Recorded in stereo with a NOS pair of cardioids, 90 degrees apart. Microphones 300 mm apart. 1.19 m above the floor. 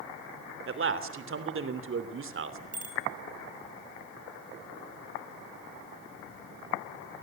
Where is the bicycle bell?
25° right, 6.5 m.